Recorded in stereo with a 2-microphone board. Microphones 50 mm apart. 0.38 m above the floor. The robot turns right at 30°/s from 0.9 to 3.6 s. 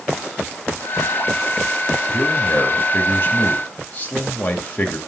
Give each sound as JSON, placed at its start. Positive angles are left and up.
{"t": 2.1, "sound": "a man speaking", "azimuth_deg": 95, "distance_m": 1.9}